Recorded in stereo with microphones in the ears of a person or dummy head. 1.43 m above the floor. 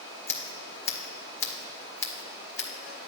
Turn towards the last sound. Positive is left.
turn(degrees=15)  # may be behind; listen again after turning